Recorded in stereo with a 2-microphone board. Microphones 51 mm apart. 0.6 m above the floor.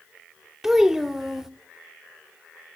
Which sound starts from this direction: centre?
A child speaking, at 0.6 s.